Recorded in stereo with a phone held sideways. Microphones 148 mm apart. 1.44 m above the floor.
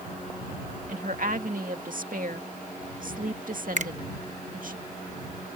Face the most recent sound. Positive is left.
turn(degrees=-55)  # may be behind; listen again after turning